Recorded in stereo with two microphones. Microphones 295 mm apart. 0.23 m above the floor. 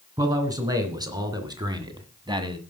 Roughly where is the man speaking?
Centre.